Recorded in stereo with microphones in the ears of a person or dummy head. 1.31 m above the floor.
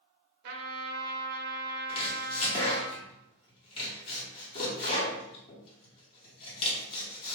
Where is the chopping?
30° left (ahead or behind), 1.3 m.